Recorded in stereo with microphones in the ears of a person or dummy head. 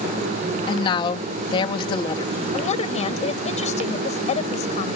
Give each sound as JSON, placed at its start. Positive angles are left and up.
{"t": 0.7, "sound": "a woman speaking", "side_deg": 25}
{"t": 2.5, "sound": "a woman speaking", "side_deg": 35}